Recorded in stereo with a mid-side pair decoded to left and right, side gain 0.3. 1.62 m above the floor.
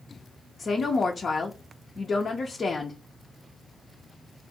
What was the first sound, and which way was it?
A woman speaking, 55° left.